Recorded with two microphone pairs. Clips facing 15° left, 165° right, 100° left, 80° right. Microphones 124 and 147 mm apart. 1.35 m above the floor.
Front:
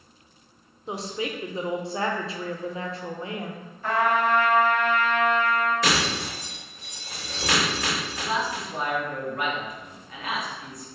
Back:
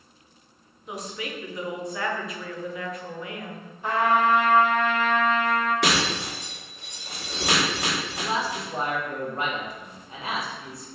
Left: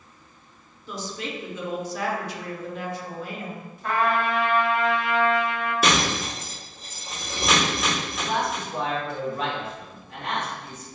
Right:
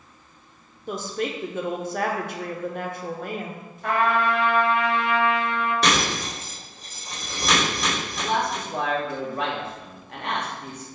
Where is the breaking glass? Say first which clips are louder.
Back 1 dB, even; 170° right, 1.6 m.